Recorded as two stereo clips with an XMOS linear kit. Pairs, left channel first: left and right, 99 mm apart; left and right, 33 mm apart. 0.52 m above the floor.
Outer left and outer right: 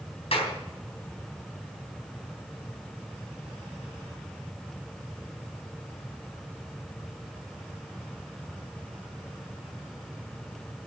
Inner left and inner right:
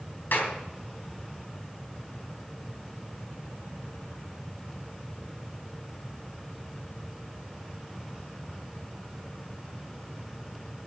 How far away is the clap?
About 3.5 m.